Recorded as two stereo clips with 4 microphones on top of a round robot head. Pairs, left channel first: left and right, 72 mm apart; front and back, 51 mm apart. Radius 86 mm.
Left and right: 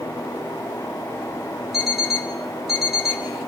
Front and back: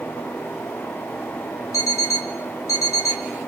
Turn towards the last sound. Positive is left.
turn(degrees=-5)